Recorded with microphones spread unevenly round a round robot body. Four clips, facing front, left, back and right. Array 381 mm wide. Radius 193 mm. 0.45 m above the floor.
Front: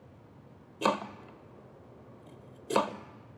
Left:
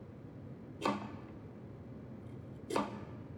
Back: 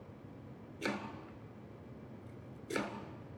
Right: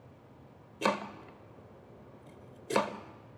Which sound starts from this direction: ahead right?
Chopping, at 0.8 s.